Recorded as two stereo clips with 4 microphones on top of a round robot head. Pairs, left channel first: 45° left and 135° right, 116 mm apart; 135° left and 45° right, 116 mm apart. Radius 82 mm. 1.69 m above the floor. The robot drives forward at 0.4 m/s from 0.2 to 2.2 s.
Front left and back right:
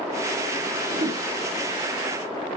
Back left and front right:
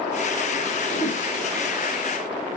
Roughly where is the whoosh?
Behind.